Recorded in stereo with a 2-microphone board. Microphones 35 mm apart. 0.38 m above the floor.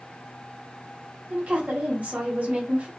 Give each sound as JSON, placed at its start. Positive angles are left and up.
{"t": 1.3, "sound": "a woman speaking", "side_deg": -40, "distance_m": 1.4}